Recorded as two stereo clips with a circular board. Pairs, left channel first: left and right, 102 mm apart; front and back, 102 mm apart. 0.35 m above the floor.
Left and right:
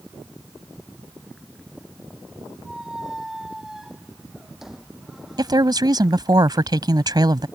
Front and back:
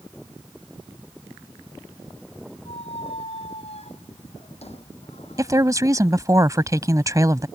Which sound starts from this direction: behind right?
A woman speaking, at 5.4 s.